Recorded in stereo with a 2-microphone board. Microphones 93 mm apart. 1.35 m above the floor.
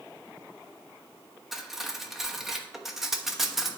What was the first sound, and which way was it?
Cutlery clinking, centre (ahead or behind).